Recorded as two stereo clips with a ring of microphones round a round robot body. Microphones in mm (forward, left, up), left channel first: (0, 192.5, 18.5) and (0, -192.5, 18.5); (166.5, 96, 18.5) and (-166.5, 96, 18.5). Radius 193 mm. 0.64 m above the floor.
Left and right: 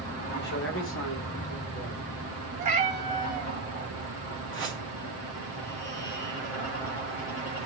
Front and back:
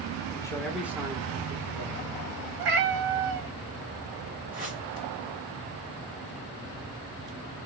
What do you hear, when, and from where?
0.3 s a man speaking: 65° left, 1.0 m; by 2.0 s 135° left, 1.4 m
2.6 s a cat meowing: 160° right, 0.7 m
4.5 s a whoosh: 130° right, 1.3 m